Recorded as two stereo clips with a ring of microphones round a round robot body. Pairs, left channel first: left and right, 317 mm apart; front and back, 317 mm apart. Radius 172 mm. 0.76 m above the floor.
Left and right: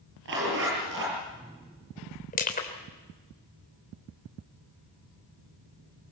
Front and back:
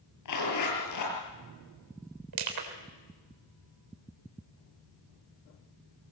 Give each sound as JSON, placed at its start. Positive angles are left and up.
{"t": 0.2, "sound": "a zipper", "azimuth_deg": -30, "distance_m": 7.5}
{"t": 2.3, "sound": "crushing", "azimuth_deg": 155, "distance_m": 3.5}